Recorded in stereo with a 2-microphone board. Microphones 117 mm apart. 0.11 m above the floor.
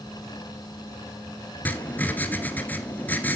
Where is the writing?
15° left (ahead or behind), 1.2 m.